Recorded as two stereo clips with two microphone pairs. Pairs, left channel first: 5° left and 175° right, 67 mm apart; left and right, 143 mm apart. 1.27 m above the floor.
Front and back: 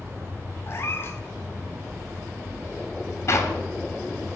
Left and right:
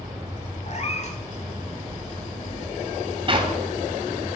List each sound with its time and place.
0.7 s a cat meowing: 60° left, 1.7 m
3.3 s a clap: 35° right, 2.5 m